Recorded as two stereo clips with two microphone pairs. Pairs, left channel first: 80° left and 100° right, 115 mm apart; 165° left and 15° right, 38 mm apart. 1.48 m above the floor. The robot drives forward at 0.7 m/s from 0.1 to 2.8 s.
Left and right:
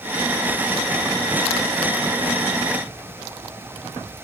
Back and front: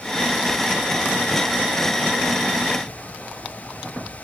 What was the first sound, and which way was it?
Only background noise.